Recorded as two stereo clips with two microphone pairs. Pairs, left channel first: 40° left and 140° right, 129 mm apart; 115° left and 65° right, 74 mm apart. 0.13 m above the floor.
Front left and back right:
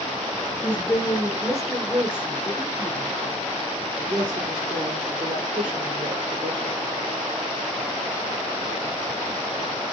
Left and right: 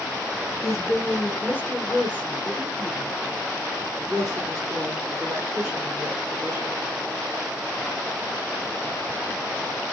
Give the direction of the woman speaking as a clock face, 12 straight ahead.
8 o'clock.